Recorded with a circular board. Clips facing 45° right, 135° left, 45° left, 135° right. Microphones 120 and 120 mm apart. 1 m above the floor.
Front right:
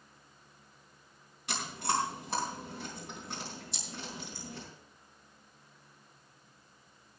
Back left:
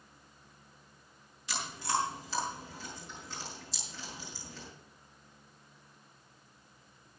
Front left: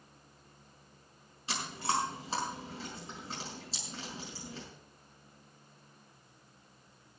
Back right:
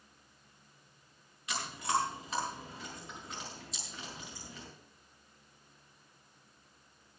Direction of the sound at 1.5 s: 15° right.